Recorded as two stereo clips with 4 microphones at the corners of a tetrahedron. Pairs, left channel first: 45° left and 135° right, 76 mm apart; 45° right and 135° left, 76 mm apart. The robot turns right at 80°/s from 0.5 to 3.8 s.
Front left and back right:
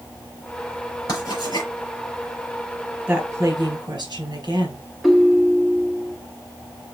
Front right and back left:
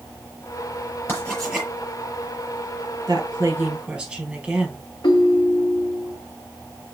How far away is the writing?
About 5.5 m.